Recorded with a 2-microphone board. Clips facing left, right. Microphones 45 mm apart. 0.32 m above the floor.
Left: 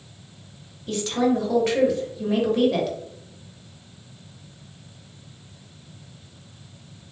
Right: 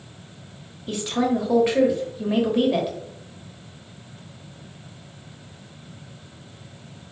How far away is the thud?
No thud in this recording.